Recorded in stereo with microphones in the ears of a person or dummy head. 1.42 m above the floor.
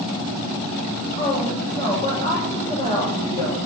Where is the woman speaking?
30° left (ahead or behind), 7 m.